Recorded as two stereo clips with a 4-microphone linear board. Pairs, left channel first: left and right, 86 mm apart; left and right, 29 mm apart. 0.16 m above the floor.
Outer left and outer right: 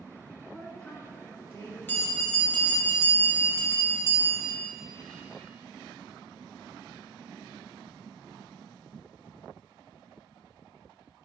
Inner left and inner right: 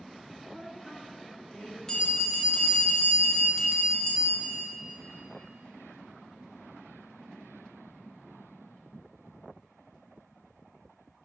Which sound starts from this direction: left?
A bell, at 1.9 s.